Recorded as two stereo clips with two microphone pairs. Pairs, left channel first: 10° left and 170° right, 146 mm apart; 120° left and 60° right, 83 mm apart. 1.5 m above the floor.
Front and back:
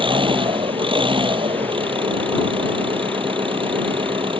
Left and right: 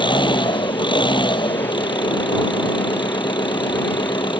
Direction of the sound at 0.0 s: 135° left.